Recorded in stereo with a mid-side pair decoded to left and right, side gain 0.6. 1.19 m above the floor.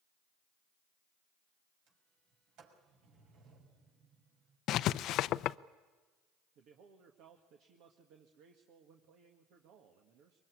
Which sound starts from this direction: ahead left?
Writing, at 4.7 s.